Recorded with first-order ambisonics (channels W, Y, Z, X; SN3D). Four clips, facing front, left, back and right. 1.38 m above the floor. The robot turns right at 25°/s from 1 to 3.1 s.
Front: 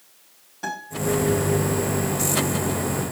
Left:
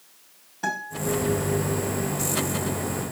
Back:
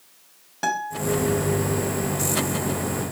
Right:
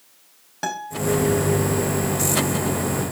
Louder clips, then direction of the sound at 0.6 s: Right 2 dB, back 5 dB; 130° right.